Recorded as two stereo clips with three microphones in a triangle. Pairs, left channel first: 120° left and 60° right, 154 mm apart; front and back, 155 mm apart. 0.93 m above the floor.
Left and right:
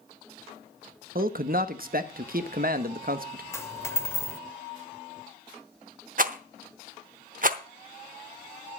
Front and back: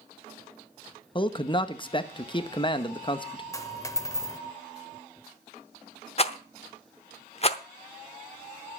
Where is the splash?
No splash in this recording.